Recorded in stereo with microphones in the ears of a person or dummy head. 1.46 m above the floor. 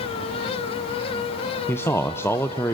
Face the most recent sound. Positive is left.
turn(degrees=10)  # may be behind; listen again after turning